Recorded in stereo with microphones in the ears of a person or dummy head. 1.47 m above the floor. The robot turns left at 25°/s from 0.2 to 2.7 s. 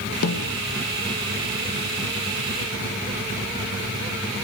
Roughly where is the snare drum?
Left.